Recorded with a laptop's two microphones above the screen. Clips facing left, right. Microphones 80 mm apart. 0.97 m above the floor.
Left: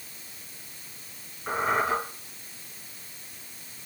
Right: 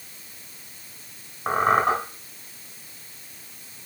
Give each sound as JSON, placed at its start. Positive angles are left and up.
{"t": 1.5, "sound": "a squeak", "side_deg": -65, "distance_m": 2.5}